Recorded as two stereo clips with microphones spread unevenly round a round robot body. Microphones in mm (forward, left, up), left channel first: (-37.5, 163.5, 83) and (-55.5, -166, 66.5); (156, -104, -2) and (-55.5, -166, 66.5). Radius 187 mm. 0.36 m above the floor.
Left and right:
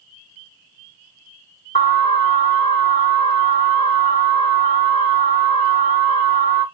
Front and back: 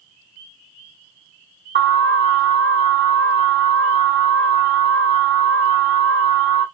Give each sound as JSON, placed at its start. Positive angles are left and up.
{"t": 1.8, "sound": "an alarm", "azimuth_deg": 135, "distance_m": 1.1}